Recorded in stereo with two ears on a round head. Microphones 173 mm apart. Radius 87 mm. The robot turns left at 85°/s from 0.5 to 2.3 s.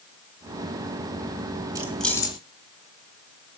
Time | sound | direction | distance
1.8 | keys jangling | 20° right (ahead or behind) | 2.5 m